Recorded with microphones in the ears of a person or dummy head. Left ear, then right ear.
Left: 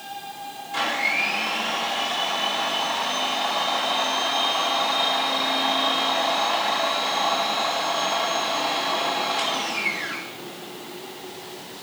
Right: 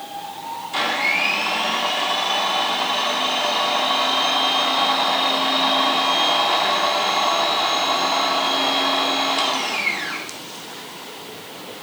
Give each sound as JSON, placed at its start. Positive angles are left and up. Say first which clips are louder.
{"t": 0.7, "sound": "a blender", "louder": "right 3 dB", "side_deg": -35, "distance_m": 2.0}